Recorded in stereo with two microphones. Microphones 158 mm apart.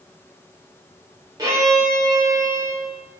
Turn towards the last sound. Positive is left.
turn(degrees=-25)  # may be behind; listen again after turning